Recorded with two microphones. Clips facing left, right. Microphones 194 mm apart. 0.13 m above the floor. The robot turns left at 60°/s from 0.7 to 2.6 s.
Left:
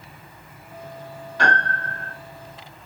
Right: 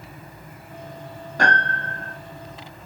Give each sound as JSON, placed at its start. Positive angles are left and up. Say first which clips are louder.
{"t": 1.4, "sound": "a piano", "louder": "right 1 dB", "azimuth_deg": -130, "distance_m": 2.0}